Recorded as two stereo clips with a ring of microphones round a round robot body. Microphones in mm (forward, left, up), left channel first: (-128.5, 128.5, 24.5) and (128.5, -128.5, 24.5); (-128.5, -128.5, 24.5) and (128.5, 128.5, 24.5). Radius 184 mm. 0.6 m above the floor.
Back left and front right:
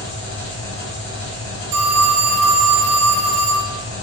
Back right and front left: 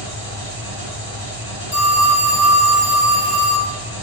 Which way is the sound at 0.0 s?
175° left.